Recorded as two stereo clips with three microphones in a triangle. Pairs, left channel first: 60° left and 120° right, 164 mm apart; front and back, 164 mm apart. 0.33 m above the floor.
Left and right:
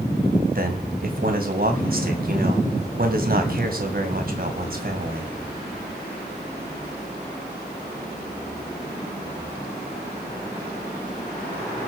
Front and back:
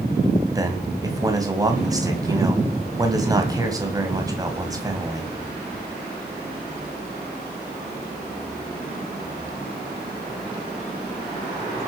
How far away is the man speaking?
About 2.5 m.